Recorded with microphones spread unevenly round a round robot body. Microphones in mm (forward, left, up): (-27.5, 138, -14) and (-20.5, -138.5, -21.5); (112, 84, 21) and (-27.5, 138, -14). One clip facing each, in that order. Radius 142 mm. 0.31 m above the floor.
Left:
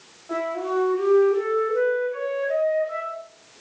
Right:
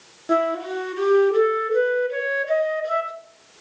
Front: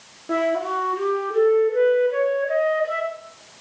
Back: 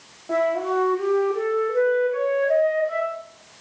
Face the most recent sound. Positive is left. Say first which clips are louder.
# right 2 dB, back 1 dB
turn(degrees=-85)